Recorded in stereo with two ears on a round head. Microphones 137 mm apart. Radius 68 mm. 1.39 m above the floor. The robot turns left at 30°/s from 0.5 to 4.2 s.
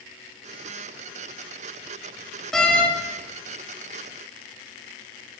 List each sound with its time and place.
2.5 s a door slam: 5° left (ahead or behind), 1.5 m; by 2.9 s 15° left (ahead or behind), 1.5 m